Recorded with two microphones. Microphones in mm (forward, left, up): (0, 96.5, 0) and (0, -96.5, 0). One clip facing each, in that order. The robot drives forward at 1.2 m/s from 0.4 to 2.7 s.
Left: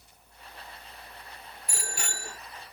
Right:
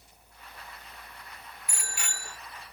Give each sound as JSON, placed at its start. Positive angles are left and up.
{"t": 1.7, "sound": "a bicycle bell", "side_deg": 35}